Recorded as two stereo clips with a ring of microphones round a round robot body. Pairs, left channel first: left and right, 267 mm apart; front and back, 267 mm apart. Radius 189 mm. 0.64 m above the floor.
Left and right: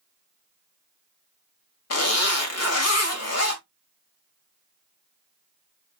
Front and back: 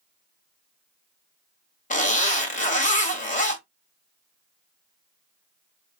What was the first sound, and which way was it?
A zipper, 65° left.